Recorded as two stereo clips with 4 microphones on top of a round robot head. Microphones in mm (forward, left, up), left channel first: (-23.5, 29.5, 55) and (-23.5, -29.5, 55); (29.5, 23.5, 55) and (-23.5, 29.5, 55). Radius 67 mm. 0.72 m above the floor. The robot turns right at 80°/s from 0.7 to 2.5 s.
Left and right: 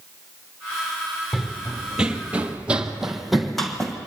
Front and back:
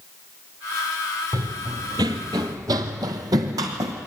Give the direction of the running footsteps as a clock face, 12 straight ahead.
6 o'clock.